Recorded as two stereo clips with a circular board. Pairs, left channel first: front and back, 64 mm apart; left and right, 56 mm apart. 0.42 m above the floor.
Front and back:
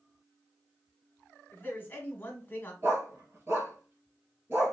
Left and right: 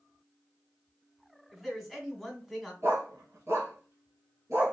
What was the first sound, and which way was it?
A man speaking, 5° right.